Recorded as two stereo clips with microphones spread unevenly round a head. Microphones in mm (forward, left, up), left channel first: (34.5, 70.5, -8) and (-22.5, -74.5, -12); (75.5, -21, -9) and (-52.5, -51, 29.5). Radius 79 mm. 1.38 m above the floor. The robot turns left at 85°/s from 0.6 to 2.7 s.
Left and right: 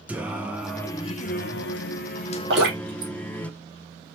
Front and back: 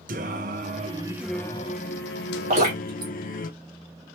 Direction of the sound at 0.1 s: 165° left.